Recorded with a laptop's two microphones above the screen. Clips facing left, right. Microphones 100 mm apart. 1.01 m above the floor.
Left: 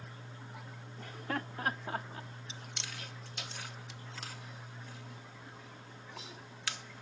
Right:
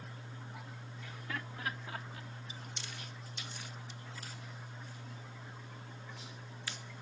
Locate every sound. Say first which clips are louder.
1.0 s laughter: left 6 dB; 50° left (ahead or behind); by 2.3 s 35° left (ahead or behind)
2.5 s chewing: left 1 dB; 85° left